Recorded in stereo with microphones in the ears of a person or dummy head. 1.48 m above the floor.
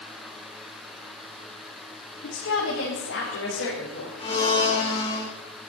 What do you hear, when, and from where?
2.2 s a woman speaking: 70° left (ahead or behind), 3.5 m; by 4.1 s 75° left (ahead or behind), 4.5 m
4.2 s a blender: 25° left (ahead or behind), 2.5 m